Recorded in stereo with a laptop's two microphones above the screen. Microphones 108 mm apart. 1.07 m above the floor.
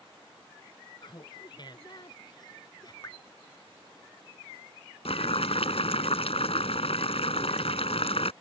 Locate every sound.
1.0 s laughter: 45° left (ahead or behind); by 2.9 s 40° left (ahead or behind)
3.0 s dripping: 40° left (ahead or behind)
5.0 s boiling: 70° left (ahead or behind)